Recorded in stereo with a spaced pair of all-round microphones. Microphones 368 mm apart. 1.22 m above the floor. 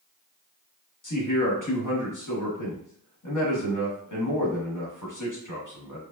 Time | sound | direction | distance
1.0 | a man speaking | 55° left (ahead or behind) | 0.9 m